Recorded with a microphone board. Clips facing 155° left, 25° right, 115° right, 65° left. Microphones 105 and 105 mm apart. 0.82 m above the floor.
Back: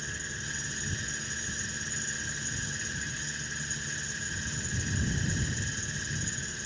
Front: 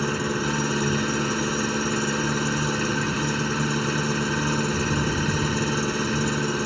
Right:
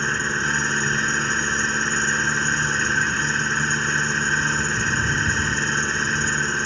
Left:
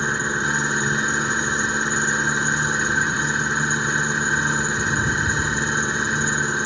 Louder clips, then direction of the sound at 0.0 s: Front 17 dB, left 1 dB; 15° right.